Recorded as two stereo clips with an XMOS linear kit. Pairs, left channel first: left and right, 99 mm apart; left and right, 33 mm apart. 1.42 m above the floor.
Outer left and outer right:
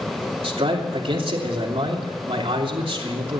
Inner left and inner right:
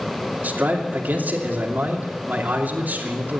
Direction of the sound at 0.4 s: 65° right (ahead or behind).